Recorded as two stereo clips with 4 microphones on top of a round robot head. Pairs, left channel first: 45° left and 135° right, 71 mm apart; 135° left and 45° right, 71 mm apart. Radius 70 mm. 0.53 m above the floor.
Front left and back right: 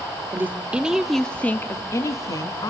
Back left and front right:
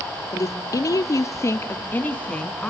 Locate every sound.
0.3 s a woman speaking: 170° left, 1.5 m; by 2.7 s 55° left, 1.7 m